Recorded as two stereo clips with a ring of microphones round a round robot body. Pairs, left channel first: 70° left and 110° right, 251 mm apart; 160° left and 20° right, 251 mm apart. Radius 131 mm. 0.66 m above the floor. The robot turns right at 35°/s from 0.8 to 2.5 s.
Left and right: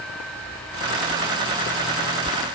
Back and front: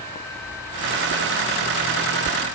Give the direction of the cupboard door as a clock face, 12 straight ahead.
No cupboard door in this recording.